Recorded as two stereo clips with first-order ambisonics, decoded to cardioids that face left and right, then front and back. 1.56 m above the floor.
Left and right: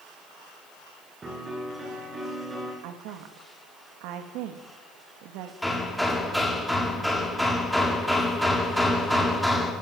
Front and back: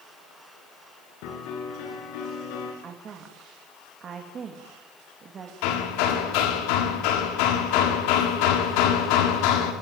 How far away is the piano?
About 7 m.